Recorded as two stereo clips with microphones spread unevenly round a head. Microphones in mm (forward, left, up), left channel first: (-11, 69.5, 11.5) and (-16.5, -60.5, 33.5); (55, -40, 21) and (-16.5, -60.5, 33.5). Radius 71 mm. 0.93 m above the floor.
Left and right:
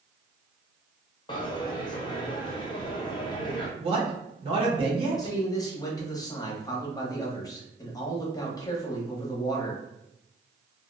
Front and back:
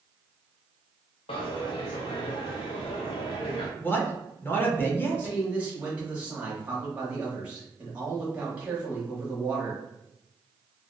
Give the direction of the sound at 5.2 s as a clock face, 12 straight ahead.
8 o'clock.